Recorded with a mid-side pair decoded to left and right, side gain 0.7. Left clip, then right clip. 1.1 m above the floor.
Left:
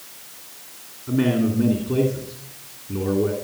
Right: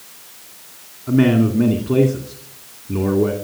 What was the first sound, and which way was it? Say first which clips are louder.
A man speaking: right 5 dB; 35° right.